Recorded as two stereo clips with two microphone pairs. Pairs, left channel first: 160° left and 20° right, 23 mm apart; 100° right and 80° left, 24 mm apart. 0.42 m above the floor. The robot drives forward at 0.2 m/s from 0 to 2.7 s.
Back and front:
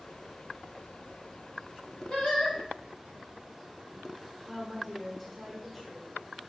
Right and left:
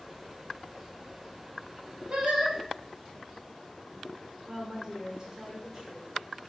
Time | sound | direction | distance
2.1 | singing | 115° left | 1.4 m
4.5 | a woman speaking | 90° left | 1.2 m